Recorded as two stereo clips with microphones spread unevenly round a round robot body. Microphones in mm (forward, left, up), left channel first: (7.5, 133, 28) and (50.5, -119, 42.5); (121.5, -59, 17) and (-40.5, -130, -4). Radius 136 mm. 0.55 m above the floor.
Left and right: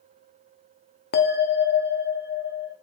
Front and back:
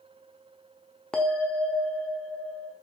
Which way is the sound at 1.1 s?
115° left.